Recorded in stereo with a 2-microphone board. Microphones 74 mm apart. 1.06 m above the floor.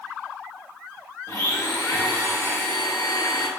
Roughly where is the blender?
Left.